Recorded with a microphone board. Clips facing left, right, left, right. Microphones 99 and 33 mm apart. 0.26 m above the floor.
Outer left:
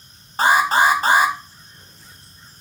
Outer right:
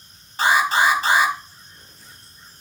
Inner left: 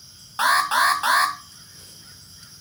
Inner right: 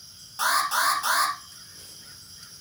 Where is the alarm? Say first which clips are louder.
Outer left 2 dB, inner left 5 dB; 45° left (ahead or behind), 1.2 m.